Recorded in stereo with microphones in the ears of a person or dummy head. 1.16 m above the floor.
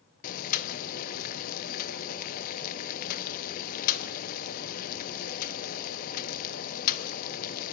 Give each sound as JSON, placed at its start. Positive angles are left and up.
{"t": 0.2, "sound": "boiling", "side_deg": 45, "distance_m": 1.0}